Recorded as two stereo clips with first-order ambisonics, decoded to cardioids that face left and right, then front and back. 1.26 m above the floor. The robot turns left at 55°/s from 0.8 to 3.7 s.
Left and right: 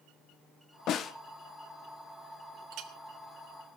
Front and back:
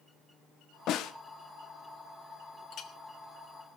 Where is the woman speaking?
No woman speaking in this recording.